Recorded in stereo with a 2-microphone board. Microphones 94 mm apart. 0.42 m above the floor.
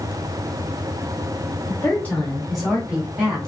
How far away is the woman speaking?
About 1.5 m.